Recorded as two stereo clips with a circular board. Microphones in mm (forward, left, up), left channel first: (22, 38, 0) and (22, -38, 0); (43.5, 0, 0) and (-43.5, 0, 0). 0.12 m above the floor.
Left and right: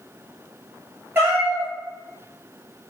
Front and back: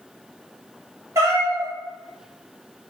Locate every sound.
1.1 s a cat meowing: 140° right, 0.9 m